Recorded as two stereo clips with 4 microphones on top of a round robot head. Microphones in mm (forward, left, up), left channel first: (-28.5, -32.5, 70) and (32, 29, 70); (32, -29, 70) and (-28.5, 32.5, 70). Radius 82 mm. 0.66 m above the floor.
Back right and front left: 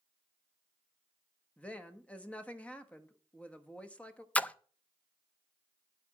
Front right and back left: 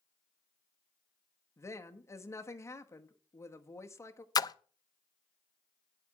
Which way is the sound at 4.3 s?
65° right.